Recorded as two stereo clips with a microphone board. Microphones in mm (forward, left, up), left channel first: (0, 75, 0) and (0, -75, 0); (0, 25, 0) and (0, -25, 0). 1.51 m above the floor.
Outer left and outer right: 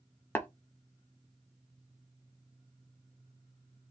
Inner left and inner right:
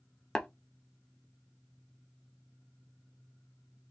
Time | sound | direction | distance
0.3 | tapping | 10° left (ahead or behind) | 0.7 m